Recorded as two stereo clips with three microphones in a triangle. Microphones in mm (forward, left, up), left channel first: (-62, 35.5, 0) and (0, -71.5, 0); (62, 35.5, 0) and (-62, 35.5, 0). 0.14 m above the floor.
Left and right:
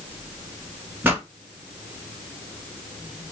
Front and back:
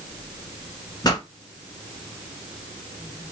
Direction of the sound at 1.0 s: 5° right.